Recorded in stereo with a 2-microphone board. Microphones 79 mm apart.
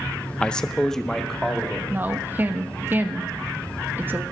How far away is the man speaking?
About 0.6 m.